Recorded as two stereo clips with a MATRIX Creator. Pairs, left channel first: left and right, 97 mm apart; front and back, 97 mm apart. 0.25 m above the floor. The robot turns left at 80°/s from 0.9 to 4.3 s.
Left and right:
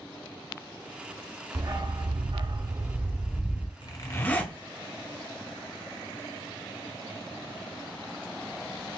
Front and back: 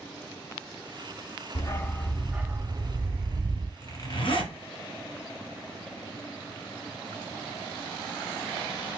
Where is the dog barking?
40° right, 0.6 m; by 3.7 s 145° left, 0.6 m.